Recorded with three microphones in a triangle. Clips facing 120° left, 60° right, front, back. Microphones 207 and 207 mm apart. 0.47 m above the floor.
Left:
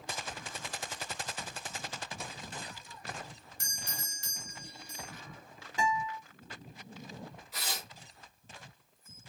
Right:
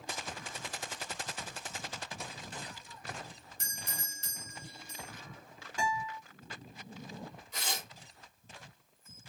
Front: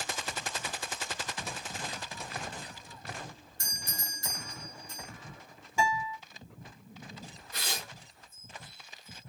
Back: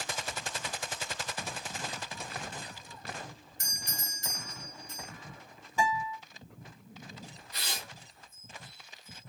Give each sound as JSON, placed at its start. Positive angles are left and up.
{"t": 3.6, "sound": "a doorbell", "azimuth_deg": 175, "distance_m": 1.2}
{"t": 5.8, "sound": "a guitar", "azimuth_deg": 70, "distance_m": 1.6}
{"t": 7.5, "sound": "tearing paper", "azimuth_deg": 35, "distance_m": 1.1}